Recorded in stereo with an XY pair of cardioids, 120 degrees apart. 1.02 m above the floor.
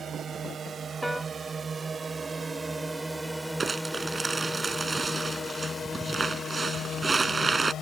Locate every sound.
0.0 s a drone: 40° right; by 7.8 s 55° left
1.0 s a piano: 5° left
3.6 s crumpling: 20° right